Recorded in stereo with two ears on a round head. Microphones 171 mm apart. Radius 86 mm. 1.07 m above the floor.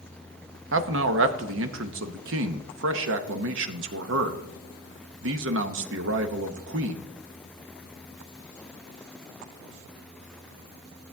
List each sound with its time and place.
0.7 s a man speaking: 70° right (ahead or behind), 1.0 m